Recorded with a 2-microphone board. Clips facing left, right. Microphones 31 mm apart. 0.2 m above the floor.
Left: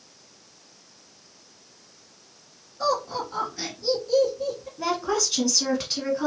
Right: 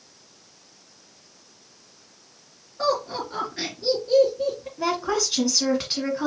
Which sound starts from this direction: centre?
A woman speaking, at 4.8 s.